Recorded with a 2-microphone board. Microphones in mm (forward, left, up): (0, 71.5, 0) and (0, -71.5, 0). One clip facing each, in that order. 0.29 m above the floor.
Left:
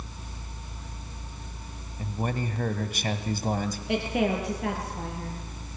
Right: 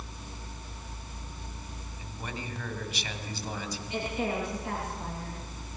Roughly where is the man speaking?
Left.